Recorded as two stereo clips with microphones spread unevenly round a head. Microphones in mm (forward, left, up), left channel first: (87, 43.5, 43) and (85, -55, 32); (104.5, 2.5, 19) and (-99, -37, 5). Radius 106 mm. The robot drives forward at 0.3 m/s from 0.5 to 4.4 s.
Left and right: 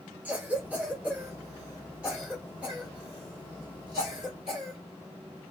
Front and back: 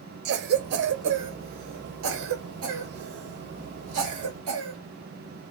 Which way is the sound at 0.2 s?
160° right.